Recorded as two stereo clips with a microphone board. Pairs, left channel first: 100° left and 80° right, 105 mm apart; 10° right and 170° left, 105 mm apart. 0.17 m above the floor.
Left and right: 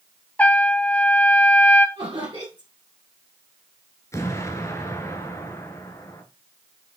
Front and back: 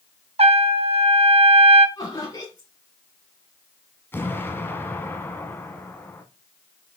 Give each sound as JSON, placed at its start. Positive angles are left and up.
{"t": 0.4, "sound": "a trumpet", "azimuth_deg": 175, "distance_m": 0.6}
{"t": 2.0, "sound": "laughter", "azimuth_deg": -50, "distance_m": 1.8}
{"t": 4.1, "sound": "an explosion", "azimuth_deg": 50, "distance_m": 1.2}